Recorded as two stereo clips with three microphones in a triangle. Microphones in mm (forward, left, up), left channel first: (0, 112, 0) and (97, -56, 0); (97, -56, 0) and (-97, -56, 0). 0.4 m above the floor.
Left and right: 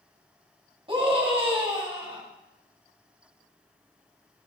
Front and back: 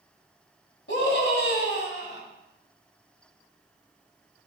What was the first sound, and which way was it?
A scream, straight ahead.